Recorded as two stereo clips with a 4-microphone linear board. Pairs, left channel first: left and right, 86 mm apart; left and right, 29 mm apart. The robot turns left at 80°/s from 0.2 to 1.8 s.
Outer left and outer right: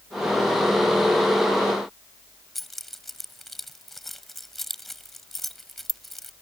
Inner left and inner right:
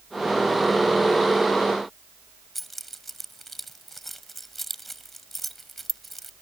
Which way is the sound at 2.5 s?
Centre (ahead or behind).